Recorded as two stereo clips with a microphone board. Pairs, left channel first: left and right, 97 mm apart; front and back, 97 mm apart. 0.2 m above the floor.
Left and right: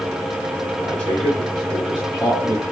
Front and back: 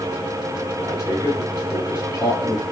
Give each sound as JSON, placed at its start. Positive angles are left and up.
{"t": 0.8, "sound": "a man speaking", "azimuth_deg": 25, "distance_m": 1.7}